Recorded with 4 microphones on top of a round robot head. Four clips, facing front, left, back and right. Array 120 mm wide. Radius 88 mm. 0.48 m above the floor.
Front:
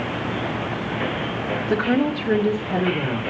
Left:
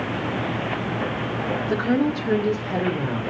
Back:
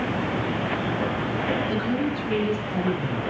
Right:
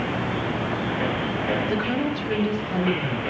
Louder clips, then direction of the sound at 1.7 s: Left 3 dB, front 5 dB; 15° left.